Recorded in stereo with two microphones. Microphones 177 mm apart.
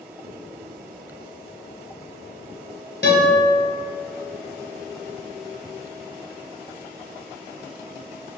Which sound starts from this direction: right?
Writing, at 0.2 s.